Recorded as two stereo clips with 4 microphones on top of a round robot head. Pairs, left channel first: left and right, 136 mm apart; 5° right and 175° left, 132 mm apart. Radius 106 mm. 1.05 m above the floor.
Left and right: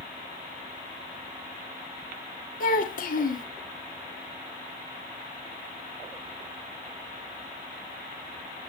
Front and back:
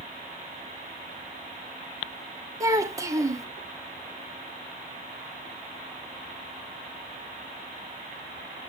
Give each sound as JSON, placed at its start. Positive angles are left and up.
{"t": 2.6, "sound": "a child speaking", "azimuth_deg": 110, "distance_m": 1.1}